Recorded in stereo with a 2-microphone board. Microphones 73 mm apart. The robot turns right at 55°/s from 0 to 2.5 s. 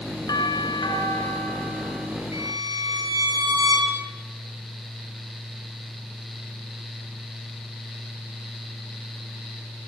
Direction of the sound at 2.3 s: 50° right (ahead or behind).